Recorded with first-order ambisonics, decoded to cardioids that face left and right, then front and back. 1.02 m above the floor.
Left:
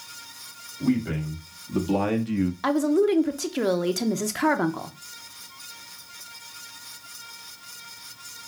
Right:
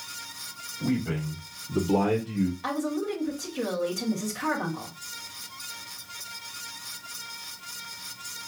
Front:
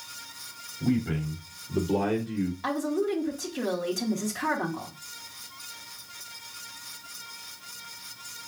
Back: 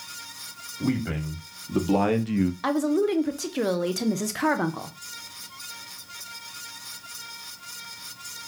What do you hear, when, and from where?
0.8 s a man speaking: 165° left, 2 m; by 2.5 s 150° left, 0.5 m
2.6 s a woman speaking: 125° left, 0.6 m